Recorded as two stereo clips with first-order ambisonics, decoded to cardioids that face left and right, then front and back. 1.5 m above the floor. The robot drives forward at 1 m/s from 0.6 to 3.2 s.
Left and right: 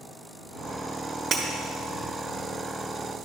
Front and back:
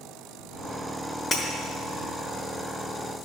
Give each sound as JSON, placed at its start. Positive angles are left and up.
{"t": 1.3, "sound": "breaking glass", "azimuth_deg": -45, "distance_m": 1.1}